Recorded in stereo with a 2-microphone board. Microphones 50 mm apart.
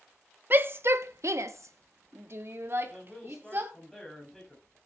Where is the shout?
40° right (ahead or behind), 0.9 m.